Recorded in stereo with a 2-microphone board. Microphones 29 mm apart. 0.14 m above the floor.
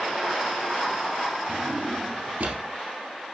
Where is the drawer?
60° right (ahead or behind), 1.7 m.